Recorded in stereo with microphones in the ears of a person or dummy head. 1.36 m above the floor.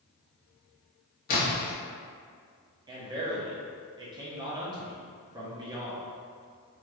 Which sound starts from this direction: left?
A splash, at 1.3 s.